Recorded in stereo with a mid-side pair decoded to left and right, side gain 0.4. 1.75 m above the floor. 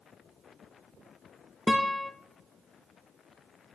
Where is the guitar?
10° left, 0.7 m.